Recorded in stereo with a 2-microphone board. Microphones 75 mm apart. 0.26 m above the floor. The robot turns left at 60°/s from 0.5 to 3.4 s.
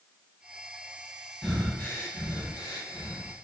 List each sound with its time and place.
1.4 s breathing: centre (ahead or behind), 1.5 m; by 3.3 s 65° left (ahead or behind), 1.5 m